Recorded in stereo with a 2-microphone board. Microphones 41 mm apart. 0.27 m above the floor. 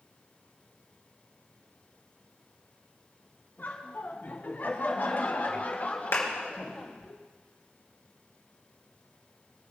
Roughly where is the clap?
Left.